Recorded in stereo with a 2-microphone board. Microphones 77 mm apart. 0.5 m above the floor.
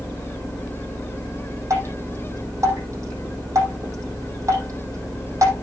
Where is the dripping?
40° right (ahead or behind), 6 m.